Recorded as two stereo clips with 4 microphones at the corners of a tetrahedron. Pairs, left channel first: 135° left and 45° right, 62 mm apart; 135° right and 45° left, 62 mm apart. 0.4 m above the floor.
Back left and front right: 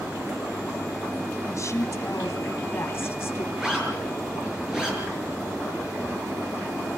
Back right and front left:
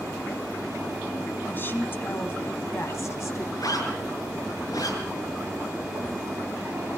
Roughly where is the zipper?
Behind right.